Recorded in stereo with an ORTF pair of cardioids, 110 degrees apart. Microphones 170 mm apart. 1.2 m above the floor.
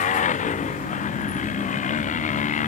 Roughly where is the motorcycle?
Ahead left.